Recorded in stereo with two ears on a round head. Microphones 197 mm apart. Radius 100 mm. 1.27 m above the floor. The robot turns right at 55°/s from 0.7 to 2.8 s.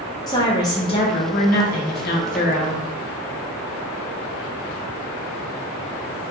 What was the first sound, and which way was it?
A woman speaking, 25° left.